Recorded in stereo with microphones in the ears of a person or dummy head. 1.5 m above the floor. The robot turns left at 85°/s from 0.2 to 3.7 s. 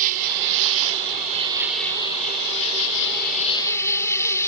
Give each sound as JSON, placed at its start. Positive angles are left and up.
{"t": 0.0, "sound": "an insect", "azimuth_deg": -50}